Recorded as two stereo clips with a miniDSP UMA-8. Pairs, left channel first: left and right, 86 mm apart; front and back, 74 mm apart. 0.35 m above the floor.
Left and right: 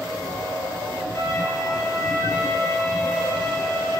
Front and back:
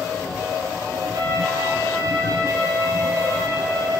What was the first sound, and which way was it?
A violin, 140° left.